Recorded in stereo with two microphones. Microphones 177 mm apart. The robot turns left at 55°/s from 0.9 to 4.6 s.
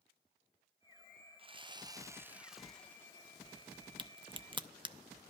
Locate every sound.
1.4 s sawing: 110° right, 0.5 m; by 3.1 s 150° left, 0.5 m
4.0 s a crack: 30° right (ahead or behind), 0.6 m; by 5.0 s 25° right (ahead or behind), 0.6 m